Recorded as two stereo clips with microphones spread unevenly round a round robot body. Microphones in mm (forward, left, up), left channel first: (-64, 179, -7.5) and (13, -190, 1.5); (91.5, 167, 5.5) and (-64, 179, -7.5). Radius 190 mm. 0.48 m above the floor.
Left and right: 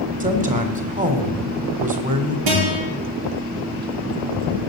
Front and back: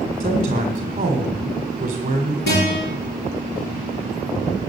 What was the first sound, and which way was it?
A woman speaking, 145° right.